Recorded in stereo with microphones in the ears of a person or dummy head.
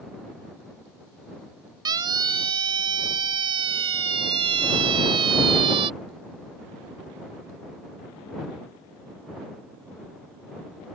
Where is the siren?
20° right (ahead or behind); by 5.9 s 25° right (ahead or behind).